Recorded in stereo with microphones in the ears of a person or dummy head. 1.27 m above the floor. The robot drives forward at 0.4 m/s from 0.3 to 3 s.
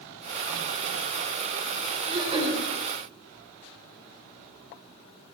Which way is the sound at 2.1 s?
35° right (ahead or behind).